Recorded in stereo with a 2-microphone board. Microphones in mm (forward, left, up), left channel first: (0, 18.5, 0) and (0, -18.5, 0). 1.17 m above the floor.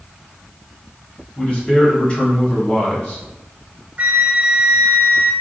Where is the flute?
35° right (ahead or behind), 0.6 m.